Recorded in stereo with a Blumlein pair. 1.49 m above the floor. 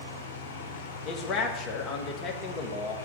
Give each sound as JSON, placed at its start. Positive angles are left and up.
{"t": 0.0, "sound": "a fan", "azimuth_deg": 65, "distance_m": 1.6}
{"t": 1.1, "sound": "a man speaking", "azimuth_deg": 25, "distance_m": 2.0}